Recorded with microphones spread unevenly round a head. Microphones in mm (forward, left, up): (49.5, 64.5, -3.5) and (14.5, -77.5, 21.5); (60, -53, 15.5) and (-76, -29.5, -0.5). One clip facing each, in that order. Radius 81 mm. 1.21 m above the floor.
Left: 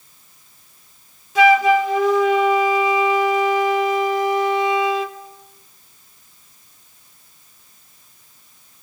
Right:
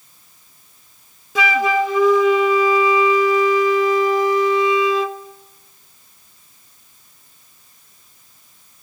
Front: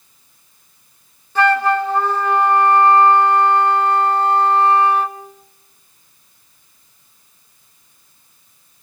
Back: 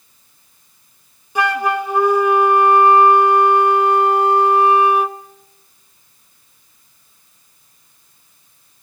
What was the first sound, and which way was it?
A flute, 110° right.